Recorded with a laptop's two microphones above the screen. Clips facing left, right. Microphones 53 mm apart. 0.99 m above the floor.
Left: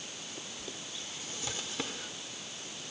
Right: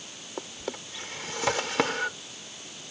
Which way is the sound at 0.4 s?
85° right.